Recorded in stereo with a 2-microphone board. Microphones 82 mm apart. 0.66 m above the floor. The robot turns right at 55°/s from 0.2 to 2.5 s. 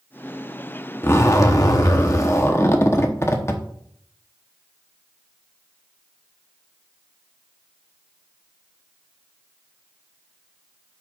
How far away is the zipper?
About 0.9 m.